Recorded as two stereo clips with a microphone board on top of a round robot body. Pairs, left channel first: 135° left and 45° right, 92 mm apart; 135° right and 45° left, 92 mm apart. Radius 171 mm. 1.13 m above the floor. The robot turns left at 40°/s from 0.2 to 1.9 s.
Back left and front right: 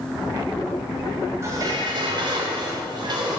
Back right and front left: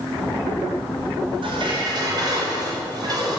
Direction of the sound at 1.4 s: 15° left.